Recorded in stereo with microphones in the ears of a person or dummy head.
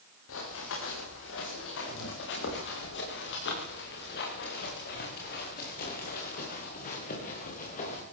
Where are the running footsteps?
75° left (ahead or behind), 8.5 m; by 8.0 s 45° left (ahead or behind), 9 m.